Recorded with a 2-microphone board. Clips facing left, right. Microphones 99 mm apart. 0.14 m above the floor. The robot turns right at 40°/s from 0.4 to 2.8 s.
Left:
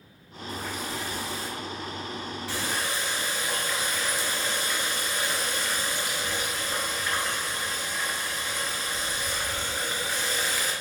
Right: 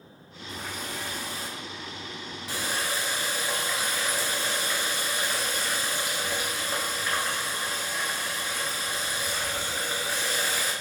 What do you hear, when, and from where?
0.5 s a running tap: 100° right, 1.2 m; by 10.7 s 10° right, 1.2 m